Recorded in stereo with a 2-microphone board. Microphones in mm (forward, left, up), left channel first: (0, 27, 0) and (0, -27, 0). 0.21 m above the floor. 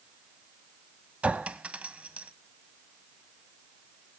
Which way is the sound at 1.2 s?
20° right (ahead or behind).